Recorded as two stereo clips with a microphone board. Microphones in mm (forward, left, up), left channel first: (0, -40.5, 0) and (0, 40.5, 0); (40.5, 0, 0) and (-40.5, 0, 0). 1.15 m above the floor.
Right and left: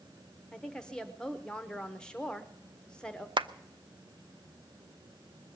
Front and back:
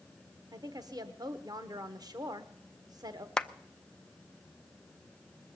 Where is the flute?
No flute in this recording.